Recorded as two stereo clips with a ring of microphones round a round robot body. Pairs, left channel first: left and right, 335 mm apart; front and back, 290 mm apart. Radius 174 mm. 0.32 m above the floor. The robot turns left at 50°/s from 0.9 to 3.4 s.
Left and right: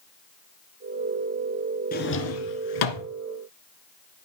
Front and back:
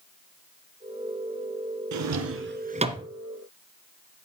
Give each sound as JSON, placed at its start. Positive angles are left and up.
{"t": 1.9, "sound": "a drawer", "azimuth_deg": 155, "distance_m": 1.5}